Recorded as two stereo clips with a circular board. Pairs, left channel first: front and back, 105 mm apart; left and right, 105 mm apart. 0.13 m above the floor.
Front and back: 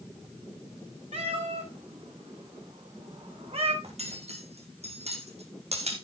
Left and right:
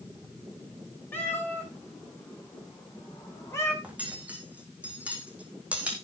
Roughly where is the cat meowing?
Behind.